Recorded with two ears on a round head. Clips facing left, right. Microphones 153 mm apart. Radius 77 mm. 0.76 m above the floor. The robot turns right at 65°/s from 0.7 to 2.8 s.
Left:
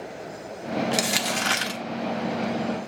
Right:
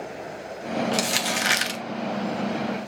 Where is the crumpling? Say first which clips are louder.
Even; 160° left, 0.6 m; by 1.8 s 140° right, 0.6 m.